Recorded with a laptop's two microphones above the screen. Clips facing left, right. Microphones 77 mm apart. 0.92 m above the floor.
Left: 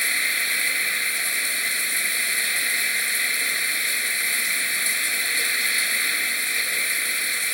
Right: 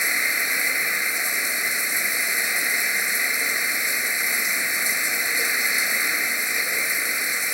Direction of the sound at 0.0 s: 20° right (ahead or behind).